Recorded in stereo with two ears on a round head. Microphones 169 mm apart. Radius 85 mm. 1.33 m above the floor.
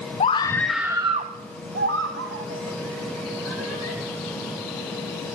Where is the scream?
30° left (ahead or behind), 0.7 m; by 4.0 s 75° right (ahead or behind), 2.5 m.